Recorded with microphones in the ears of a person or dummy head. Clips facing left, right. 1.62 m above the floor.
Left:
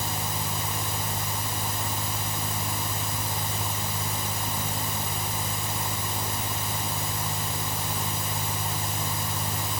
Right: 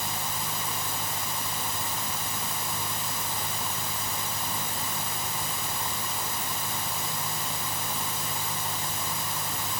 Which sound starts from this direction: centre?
A fan, at 0.0 s.